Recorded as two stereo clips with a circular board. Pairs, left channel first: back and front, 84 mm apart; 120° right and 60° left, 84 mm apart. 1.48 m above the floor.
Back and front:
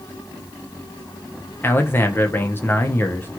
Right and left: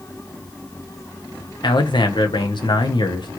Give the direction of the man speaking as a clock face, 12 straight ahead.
4 o'clock.